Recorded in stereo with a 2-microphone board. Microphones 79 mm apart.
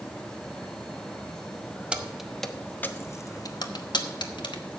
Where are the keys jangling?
15° right (ahead or behind), 0.9 m; by 4.8 s 80° left, 1.3 m.